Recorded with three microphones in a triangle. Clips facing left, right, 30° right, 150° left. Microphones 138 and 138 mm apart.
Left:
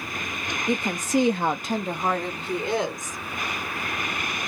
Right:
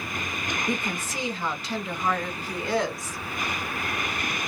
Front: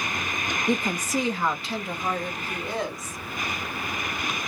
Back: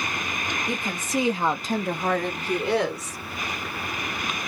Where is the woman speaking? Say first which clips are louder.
Left 9 dB, front 6 dB; 30° left, 0.8 m; by 3.2 s 165° left, 1.6 m.